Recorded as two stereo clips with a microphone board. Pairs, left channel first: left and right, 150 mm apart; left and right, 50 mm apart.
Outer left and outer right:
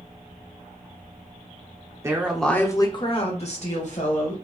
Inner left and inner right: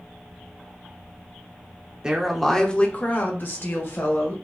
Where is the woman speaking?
20° right (ahead or behind), 0.7 m; by 4.3 s 60° left (ahead or behind), 1.8 m.